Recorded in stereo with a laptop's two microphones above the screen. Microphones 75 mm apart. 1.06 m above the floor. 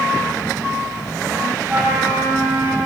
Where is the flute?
25° right (ahead or behind), 6 m.